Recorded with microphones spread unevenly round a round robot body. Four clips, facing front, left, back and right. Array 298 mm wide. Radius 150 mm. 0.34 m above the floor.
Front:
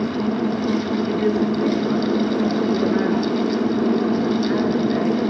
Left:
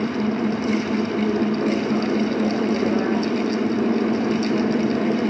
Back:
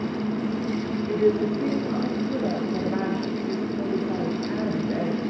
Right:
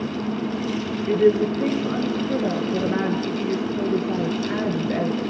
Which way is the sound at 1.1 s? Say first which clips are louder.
Right 3 dB, back 1 dB; 95° right.